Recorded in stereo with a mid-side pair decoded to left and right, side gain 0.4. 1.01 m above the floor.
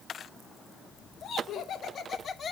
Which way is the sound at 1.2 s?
70° left.